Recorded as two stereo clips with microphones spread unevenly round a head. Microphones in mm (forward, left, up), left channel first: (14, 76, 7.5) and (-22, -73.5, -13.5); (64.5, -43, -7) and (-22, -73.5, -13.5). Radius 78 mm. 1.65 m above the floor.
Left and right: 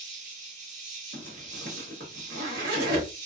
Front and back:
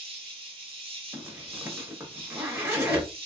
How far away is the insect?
About 1.0 m.